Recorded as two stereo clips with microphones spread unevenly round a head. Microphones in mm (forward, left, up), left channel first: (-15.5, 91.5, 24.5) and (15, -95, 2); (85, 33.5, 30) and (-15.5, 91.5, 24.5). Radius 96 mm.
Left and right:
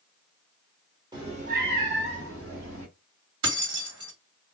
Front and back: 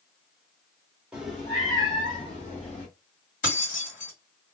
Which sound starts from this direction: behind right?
A cat meowing, at 1.1 s.